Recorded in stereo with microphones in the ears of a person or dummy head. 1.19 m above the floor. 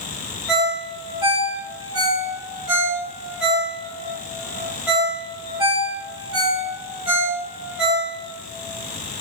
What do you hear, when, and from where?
0.5 s a ringtone: 5° right (ahead or behind), 1.1 m